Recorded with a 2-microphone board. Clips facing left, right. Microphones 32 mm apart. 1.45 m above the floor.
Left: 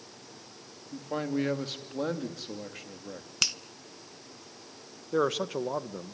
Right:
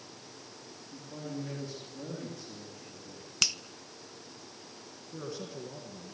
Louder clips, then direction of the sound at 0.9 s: Left 10 dB; 75° left (ahead or behind).